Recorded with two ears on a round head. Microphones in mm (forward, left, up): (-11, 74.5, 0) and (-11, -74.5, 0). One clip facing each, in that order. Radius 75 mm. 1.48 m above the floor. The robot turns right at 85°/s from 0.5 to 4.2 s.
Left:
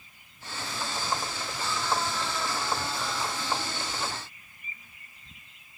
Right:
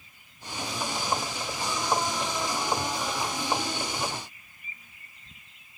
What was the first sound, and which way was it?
Only background noise.